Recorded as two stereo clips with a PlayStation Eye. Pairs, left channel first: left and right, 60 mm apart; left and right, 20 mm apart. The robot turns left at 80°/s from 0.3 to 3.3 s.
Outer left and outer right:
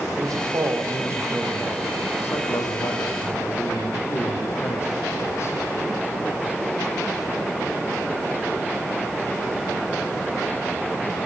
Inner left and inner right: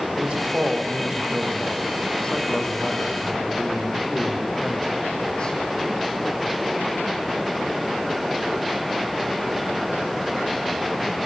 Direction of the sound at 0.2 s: 70° right.